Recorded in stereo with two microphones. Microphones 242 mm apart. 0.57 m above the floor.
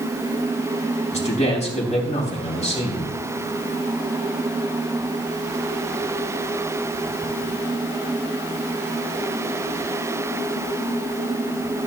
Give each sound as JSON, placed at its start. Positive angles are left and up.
{"t": 1.1, "sound": "a man speaking", "side_deg": 30, "distance_m": 3.5}